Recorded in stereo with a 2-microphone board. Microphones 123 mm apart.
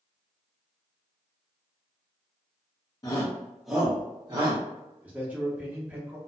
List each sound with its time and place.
3.0 s a shout: 30° left (ahead or behind), 0.7 m; by 4.6 s 40° right (ahead or behind), 0.9 m
5.0 s a man speaking: 10° right (ahead or behind), 0.9 m